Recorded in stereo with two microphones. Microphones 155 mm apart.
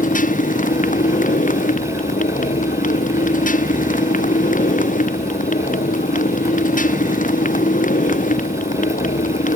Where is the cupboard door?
I don't hear a cupboard door.